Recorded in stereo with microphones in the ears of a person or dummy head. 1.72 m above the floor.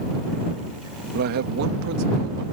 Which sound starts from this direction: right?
A man speaking, at 1.1 s.